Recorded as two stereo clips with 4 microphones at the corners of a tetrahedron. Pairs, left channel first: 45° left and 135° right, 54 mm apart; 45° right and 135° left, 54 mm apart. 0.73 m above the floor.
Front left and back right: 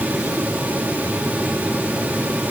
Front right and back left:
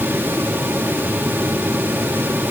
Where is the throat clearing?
I don't hear throat clearing.